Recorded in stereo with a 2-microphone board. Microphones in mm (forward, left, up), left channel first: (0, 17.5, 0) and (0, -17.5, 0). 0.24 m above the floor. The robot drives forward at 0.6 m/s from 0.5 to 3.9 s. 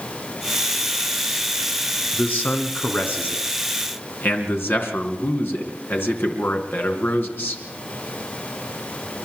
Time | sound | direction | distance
2.1 | a man speaking | 55° left (ahead or behind) | 3.5 m